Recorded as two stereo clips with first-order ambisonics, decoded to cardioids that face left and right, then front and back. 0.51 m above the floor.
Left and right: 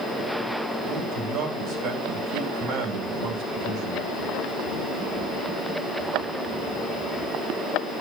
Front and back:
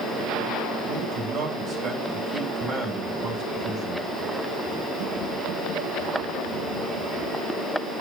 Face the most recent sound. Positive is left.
turn(degrees=-110)